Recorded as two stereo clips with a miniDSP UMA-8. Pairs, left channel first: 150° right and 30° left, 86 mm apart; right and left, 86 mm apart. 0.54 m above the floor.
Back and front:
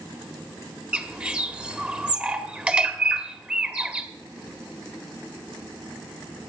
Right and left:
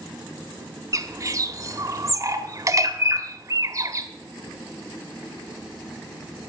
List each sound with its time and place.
0.9 s a bird: 95° left, 1.4 m